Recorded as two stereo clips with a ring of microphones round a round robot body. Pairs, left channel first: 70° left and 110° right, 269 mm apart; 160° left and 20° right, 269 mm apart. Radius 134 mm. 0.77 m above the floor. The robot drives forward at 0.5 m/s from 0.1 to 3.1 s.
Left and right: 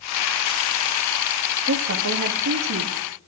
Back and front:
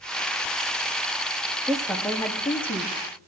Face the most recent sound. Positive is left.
turn(degrees=-140)